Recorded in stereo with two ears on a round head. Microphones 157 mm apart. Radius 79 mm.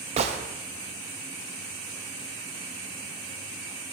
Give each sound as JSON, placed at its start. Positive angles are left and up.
{"t": 0.2, "sound": "a gunshot", "side_deg": -35, "distance_m": 0.5}